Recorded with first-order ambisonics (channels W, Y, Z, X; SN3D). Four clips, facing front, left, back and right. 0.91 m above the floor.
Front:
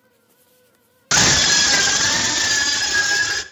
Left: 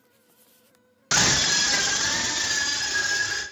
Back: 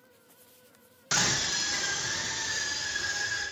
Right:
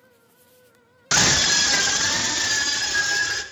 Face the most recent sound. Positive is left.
turn(degrees=-10)